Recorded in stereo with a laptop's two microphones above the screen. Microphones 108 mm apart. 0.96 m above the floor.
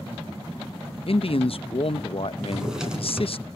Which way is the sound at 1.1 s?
60° left (ahead or behind).